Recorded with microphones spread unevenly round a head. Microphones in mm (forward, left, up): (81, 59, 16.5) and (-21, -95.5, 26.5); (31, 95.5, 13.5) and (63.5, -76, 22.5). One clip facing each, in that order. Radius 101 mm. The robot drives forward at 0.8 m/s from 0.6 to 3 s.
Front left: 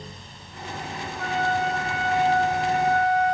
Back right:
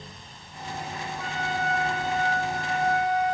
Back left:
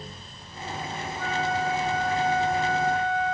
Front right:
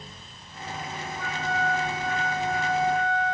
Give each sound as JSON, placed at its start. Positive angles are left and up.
{"t": 1.2, "sound": "a flute", "azimuth_deg": -115, "distance_m": 2.5}